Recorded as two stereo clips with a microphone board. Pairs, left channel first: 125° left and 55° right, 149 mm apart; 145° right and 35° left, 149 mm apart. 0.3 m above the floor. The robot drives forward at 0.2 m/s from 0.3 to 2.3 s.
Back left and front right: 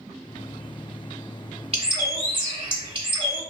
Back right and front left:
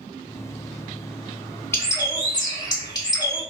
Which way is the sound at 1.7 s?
80° right.